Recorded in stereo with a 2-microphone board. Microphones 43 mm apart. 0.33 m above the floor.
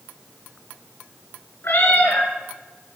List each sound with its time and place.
1.6 s a cat meowing: 65° left (ahead or behind), 2 m